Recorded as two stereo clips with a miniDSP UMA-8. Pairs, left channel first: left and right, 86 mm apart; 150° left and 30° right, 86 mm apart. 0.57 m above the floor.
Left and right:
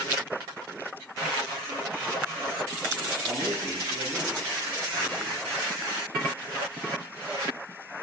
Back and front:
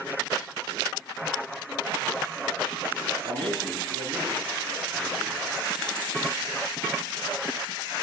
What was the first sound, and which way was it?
A man speaking, 35° right.